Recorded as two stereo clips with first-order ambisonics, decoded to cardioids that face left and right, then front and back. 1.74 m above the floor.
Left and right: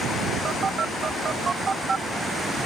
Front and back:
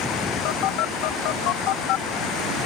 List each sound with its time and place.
0.5 s a phone buzzing: 20° right